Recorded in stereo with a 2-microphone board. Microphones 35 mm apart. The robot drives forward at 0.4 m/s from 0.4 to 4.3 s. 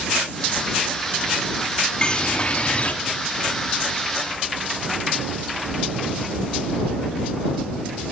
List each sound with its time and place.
2.0 s a bird: 30° left (ahead or behind), 1.0 m; by 2.9 s 40° left (ahead or behind), 0.7 m